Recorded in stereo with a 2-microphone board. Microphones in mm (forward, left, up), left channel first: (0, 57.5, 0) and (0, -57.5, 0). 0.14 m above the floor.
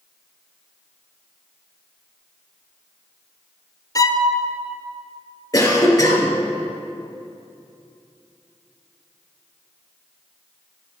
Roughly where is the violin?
Left.